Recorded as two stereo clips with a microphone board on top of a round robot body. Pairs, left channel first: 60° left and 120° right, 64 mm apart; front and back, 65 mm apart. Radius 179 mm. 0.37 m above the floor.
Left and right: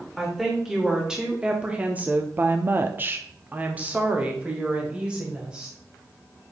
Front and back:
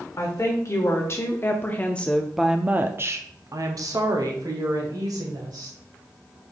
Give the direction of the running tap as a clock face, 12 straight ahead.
No running tap in this recording.